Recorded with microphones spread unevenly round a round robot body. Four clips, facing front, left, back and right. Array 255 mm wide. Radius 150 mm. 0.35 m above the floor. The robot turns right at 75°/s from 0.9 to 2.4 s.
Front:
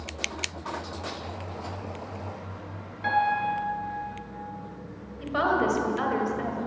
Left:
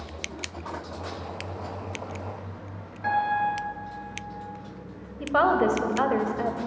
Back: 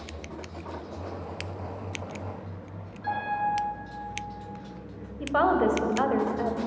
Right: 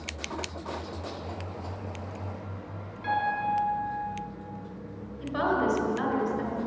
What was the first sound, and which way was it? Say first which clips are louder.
A piano: left 4 dB, front 4 dB; 50° left.